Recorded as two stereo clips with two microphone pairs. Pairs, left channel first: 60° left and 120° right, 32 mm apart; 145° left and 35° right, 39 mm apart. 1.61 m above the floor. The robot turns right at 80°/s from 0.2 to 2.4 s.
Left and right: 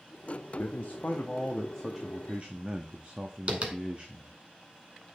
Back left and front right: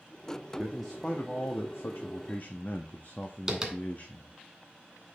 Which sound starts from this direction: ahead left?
A man speaking, at 0.6 s.